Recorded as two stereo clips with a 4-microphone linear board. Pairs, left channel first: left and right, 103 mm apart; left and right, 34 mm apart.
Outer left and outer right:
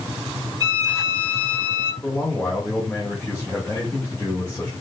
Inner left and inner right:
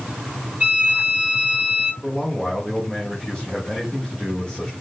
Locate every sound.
0.6 s a violin: 35° right (ahead or behind), 3 m
2.0 s a man speaking: 10° left (ahead or behind), 1.5 m